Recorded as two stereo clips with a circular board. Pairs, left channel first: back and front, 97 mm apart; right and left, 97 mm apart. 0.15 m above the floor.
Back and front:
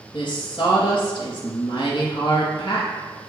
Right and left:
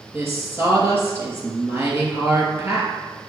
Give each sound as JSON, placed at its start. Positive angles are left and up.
{"t": 0.1, "sound": "a woman speaking", "azimuth_deg": 155, "distance_m": 2.5}